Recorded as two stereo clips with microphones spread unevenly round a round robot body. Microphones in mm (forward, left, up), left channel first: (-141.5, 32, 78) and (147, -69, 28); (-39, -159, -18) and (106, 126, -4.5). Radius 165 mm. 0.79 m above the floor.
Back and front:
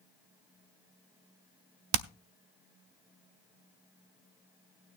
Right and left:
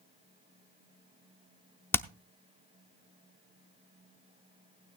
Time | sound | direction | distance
1.9 | hammering | 35° right | 0.6 m